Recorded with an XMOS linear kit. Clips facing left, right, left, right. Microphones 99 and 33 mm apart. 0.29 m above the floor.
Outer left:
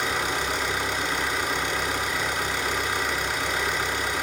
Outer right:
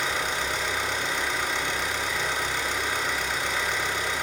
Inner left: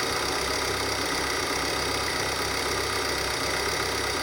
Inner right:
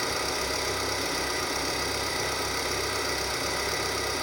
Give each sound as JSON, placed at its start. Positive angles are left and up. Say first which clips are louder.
{"t": 0.0, "sound": "an engine running", "louder": "outer left 2 dB, inner left 2 dB", "side_deg": 65, "distance_m": 1.0}